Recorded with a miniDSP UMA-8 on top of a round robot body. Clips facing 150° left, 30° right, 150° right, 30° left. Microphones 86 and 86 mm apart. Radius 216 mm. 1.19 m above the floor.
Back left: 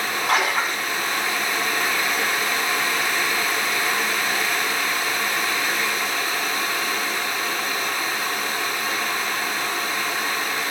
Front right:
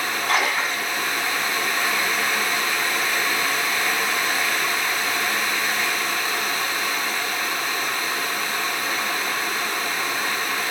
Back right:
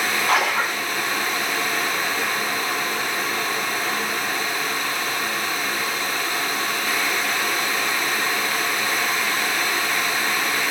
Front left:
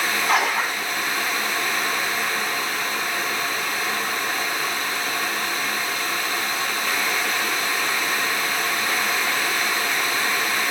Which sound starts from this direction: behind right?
A splash, at 0.3 s.